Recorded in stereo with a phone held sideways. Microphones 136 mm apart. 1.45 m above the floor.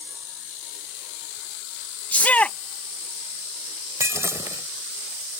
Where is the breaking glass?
20° right (ahead or behind).